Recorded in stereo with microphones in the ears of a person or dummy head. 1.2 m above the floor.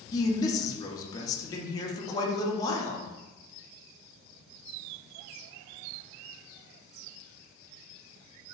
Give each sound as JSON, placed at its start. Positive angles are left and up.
{"t": 0.1, "sound": "a man speaking", "side_deg": 25, "distance_m": 0.6}